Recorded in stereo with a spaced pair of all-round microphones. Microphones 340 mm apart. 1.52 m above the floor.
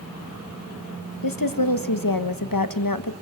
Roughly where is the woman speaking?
Left.